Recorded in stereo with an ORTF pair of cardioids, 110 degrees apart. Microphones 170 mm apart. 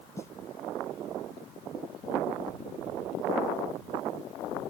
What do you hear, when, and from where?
0.2 s a snare drum: 15° left